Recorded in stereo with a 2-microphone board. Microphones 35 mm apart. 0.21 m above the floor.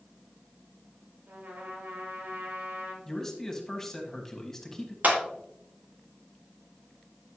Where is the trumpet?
65° right (ahead or behind), 1.9 m.